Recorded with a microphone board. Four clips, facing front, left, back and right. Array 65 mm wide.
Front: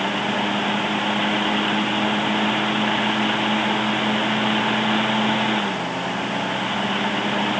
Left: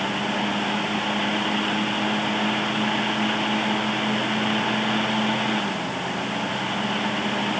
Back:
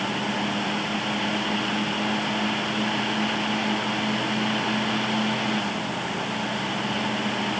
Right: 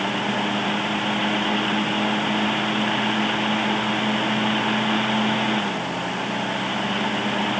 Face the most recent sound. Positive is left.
No sound to turn to.